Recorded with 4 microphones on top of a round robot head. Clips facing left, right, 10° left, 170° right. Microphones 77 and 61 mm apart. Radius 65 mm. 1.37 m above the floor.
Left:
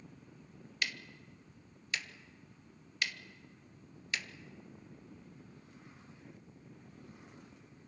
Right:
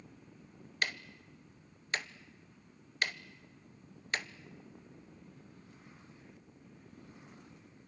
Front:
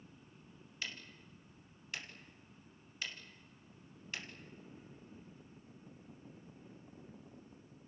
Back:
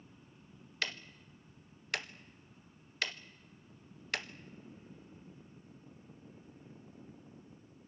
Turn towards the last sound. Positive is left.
turn(degrees=-145)